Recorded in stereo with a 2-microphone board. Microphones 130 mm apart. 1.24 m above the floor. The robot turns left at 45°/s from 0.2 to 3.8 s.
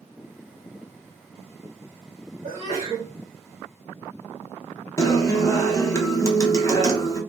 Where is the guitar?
25° left (ahead or behind), 0.6 m.